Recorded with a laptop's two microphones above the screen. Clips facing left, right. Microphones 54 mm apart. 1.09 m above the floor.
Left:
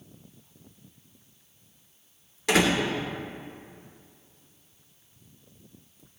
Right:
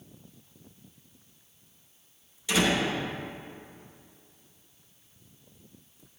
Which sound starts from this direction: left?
A door slam, at 2.5 s.